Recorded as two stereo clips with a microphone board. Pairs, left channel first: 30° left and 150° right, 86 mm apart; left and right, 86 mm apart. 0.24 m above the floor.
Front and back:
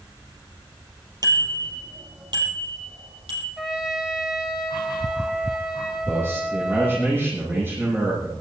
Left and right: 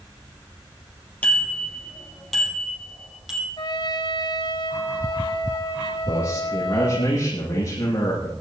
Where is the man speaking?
145° left, 8 m.